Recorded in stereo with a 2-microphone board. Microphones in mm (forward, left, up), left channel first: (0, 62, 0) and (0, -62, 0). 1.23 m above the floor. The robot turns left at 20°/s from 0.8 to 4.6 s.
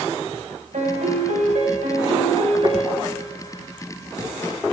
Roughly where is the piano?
Right.